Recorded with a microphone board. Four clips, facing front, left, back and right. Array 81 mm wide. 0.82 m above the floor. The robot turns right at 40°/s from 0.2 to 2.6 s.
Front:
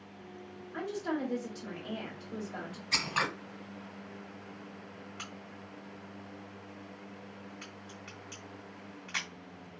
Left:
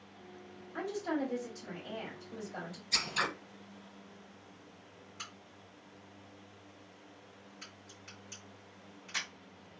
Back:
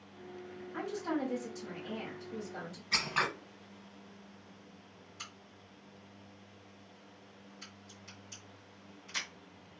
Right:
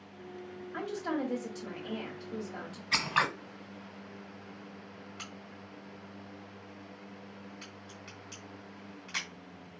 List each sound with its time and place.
0.7 s a woman speaking: 90° right, 2 m; by 2.8 s 15° right, 2 m
2.9 s scissors: 80° right, 1.3 m
5.2 s a crack: 20° right, 2 m